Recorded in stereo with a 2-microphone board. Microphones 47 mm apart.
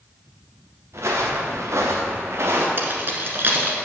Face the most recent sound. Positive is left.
turn(degrees=-50)  # may be behind; listen again after turning